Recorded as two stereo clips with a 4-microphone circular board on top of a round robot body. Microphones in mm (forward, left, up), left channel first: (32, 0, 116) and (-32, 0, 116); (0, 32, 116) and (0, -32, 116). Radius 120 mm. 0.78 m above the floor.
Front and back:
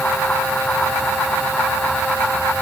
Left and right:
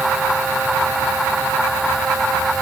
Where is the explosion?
I don't hear an explosion.